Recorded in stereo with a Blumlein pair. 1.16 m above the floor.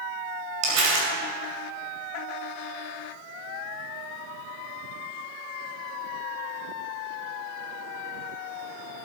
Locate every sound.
0.6 s crumpling: 45° right, 4.5 m